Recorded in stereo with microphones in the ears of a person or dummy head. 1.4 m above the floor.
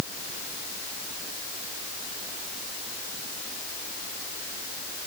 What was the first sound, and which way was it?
Only background noise.